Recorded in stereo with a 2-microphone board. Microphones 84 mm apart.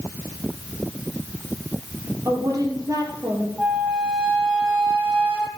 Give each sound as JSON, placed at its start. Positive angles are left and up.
{"t": 2.2, "sound": "a woman speaking", "side_deg": -40, "distance_m": 3.0}
{"t": 3.6, "sound": "a flute", "side_deg": -5, "distance_m": 2.5}